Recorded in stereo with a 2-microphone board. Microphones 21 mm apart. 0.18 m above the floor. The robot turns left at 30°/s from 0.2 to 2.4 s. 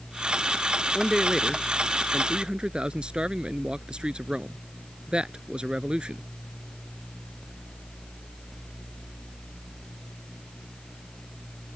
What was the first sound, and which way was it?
A man speaking, 10° right.